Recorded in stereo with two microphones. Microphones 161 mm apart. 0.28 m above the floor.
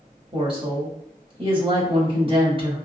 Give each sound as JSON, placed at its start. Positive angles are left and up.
{"t": 0.3, "sound": "a woman speaking", "side_deg": -35, "distance_m": 1.1}